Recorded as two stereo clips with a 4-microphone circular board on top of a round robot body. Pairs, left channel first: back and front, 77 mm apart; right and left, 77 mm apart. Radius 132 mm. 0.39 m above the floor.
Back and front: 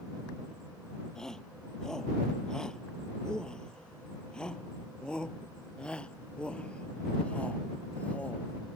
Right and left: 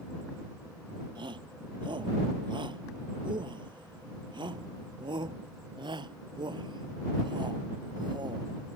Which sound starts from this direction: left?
A shout, at 1.1 s.